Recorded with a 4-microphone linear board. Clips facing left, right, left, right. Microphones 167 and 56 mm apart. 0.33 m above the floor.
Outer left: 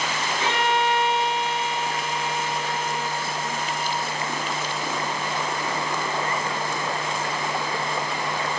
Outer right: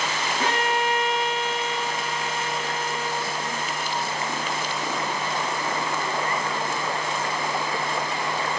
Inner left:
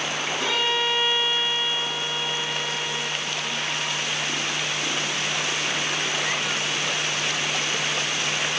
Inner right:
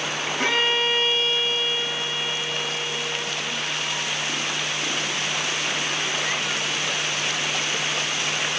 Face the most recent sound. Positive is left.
turn(degrees=-45)  # may be behind; listen again after turning